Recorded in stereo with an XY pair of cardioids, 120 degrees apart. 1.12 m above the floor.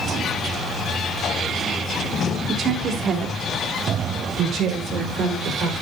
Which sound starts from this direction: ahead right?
A woman speaking, at 2.5 s.